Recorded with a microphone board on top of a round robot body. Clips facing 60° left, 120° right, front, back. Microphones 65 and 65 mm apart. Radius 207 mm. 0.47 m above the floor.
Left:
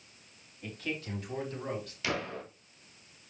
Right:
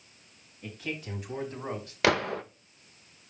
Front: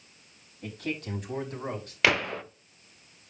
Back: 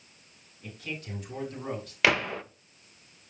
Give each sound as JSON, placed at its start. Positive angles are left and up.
{"t": 0.6, "sound": "a man speaking", "azimuth_deg": -35, "distance_m": 4.5}
{"t": 2.0, "sound": "a gunshot", "azimuth_deg": -90, "distance_m": 1.1}